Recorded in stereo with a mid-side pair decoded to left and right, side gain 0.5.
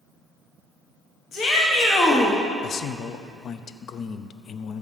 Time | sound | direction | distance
1.3 | a shout | 55° left | 1.8 m
2.6 | a man speaking | 55° left | 0.7 m